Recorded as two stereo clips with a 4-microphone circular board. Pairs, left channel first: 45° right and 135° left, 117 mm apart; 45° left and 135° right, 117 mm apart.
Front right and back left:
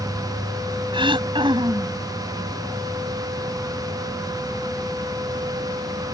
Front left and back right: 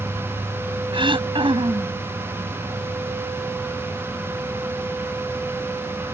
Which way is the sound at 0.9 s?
Straight behind.